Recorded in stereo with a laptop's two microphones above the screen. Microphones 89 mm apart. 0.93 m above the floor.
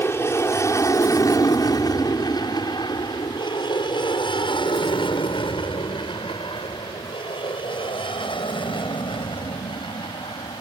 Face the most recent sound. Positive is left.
turn(degrees=65)  # may be behind; listen again after turning